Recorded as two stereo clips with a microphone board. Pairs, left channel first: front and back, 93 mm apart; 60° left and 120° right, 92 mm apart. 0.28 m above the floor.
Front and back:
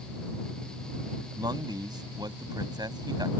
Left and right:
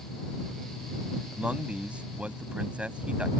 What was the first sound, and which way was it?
A man speaking, 165° left.